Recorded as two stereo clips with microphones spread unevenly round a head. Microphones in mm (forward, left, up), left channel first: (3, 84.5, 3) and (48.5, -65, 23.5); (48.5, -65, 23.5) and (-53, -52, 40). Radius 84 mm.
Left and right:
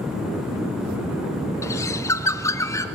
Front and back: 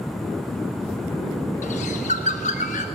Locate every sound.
1.6 s a bird: 35° left, 0.8 m